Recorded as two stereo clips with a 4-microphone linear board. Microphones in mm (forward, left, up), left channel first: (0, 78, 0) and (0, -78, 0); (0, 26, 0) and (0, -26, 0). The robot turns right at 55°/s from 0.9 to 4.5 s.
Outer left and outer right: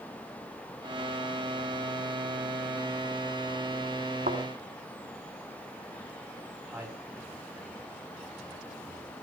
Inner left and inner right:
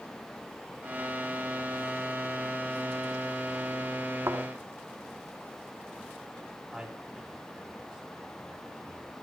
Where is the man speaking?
10° right (ahead or behind), 7 m.